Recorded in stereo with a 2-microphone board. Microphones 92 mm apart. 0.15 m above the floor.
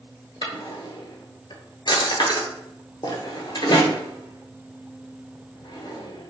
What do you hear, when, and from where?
0.4 s a drawer: 60° left (ahead or behind), 0.8 m